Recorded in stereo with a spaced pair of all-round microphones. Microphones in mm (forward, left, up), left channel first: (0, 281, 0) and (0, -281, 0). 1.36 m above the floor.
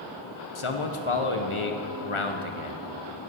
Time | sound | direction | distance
0.6 | a man speaking | 60° left (ahead or behind) | 1.2 m